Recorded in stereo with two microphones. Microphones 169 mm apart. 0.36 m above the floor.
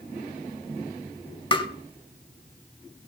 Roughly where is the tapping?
Left.